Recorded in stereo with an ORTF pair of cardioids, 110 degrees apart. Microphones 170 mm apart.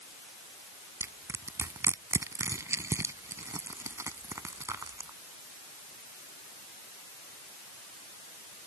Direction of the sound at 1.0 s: 15° right.